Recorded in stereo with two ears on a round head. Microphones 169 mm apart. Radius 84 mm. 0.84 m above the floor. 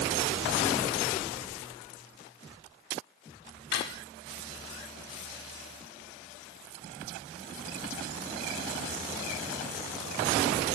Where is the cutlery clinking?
65° left (ahead or behind), 1.1 m.